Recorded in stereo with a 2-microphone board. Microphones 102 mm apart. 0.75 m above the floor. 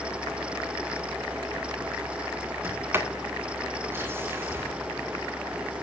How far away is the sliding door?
About 2 m.